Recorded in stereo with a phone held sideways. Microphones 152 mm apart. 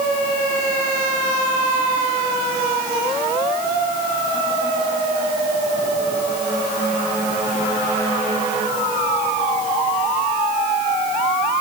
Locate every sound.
Only background noise.